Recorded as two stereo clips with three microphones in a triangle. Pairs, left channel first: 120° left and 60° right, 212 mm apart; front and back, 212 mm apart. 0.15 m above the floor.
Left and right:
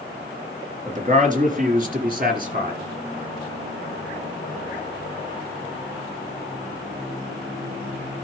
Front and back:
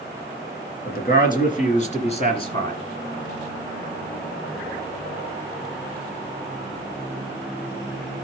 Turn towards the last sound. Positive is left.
turn(degrees=-55)